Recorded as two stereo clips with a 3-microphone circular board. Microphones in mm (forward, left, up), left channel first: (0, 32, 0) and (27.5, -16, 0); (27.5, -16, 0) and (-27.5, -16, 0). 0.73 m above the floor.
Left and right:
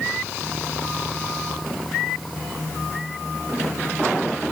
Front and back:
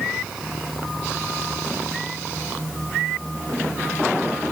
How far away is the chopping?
I don't hear chopping.